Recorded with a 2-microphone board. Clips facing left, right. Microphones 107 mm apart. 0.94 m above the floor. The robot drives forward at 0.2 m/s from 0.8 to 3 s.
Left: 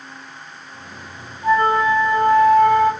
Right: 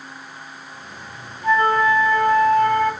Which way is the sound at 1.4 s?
30° left (ahead or behind).